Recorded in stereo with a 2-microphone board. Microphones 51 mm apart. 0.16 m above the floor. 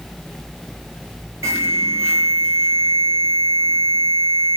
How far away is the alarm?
About 5 m.